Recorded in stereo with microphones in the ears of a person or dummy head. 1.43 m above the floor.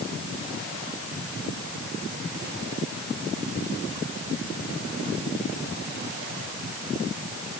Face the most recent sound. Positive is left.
No sound to turn to.